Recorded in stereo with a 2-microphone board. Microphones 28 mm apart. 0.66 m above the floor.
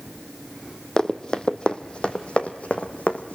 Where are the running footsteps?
25° left (ahead or behind), 1.4 m; by 3.4 s 65° left (ahead or behind), 2.0 m.